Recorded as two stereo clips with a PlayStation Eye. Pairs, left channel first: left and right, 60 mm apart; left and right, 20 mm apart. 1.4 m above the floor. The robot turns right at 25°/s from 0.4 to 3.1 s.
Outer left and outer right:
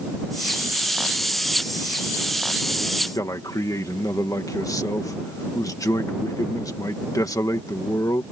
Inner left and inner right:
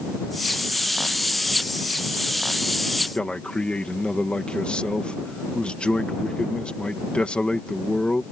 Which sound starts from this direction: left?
A man speaking, at 3.1 s.